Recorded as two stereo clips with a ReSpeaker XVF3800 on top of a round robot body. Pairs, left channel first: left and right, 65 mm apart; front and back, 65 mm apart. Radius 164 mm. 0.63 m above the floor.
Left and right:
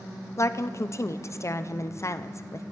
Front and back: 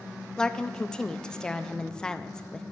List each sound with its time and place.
0.4 s a woman speaking: 75° left, 0.7 m